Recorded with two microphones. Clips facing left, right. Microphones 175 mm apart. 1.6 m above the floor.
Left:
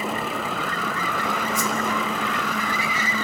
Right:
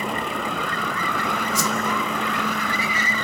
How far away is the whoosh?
About 0.7 m.